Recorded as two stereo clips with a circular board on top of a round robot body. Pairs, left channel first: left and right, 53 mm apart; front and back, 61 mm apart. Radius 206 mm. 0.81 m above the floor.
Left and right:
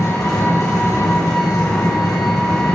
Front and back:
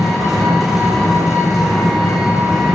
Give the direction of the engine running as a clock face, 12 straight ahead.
9 o'clock.